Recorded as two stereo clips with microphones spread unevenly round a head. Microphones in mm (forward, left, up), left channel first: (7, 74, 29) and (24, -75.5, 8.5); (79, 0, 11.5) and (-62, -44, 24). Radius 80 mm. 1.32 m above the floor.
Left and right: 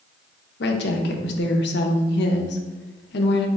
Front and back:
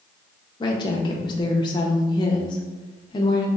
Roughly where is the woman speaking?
Left.